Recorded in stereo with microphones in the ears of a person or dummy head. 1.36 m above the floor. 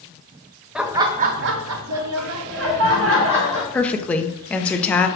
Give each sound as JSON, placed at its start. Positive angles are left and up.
{"t": 0.8, "sound": "laughter", "side_deg": 0, "distance_m": 0.6}
{"t": 3.7, "sound": "a woman speaking", "side_deg": 5, "distance_m": 0.5}